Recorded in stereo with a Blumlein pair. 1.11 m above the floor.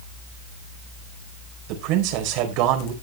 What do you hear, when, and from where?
1.7 s a man speaking: 40° right, 4 m